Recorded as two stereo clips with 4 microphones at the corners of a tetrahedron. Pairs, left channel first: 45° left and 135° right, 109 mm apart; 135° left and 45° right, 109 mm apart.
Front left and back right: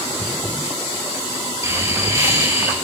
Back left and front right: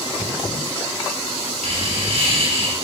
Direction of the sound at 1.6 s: 70° right.